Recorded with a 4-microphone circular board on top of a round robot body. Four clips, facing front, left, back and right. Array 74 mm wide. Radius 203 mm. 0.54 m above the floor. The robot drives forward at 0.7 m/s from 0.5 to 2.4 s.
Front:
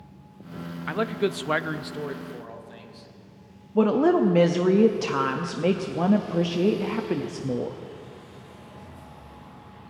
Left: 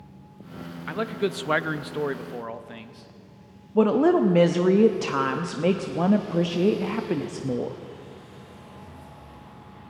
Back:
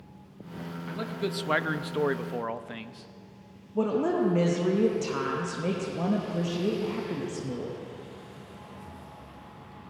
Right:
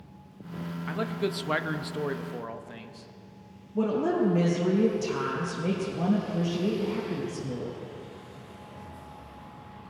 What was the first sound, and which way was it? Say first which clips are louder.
A man speaking: left 4 dB, front 8 dB; 15° left.